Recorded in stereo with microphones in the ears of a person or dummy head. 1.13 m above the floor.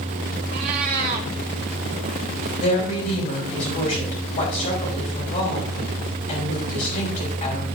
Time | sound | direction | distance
0.5 | a cat meowing | 30° right (ahead or behind) | 0.7 m
2.6 | a woman speaking | 40° left (ahead or behind) | 4.5 m